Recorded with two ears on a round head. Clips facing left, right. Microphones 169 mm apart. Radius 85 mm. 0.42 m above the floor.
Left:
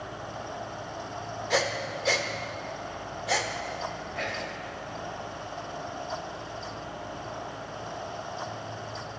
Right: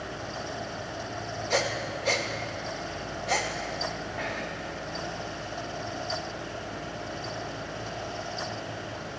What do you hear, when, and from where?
1.5 s breathing: 5° left (ahead or behind), 0.5 m
4.2 s whispering: 35° left (ahead or behind), 1.8 m